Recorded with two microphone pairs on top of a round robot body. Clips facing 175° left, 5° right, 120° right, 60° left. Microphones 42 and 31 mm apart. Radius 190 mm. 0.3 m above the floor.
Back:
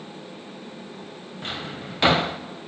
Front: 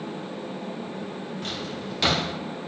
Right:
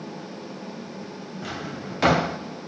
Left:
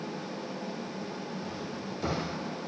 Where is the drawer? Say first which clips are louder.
Back 4 dB, right 4 dB; 115° right, 0.6 m.